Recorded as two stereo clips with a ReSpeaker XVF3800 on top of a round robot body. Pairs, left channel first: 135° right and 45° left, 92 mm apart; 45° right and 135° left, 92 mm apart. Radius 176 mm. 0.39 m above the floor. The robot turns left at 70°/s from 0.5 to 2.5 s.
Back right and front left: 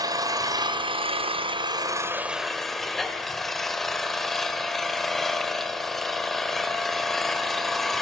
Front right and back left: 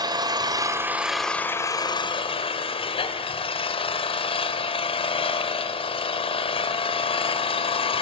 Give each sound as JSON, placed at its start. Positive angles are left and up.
{"t": 0.0, "sound": "an engine running", "azimuth_deg": 95, "distance_m": 1.5}